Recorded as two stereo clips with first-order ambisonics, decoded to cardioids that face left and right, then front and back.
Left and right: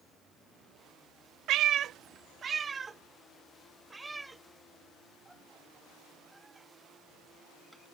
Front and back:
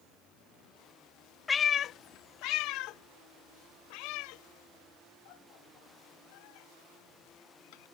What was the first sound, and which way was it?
A cat meowing, 75° right.